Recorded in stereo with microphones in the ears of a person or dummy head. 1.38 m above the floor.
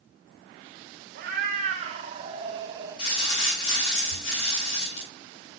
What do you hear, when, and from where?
1.1 s a cat meowing: 50° right (ahead or behind), 1.8 m; by 3.0 s 15° right (ahead or behind), 1.9 m
3.0 s crumpling: 75° left (ahead or behind), 7.5 m